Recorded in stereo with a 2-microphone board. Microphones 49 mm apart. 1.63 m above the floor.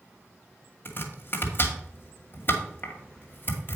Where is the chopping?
45° left (ahead or behind), 2.0 m.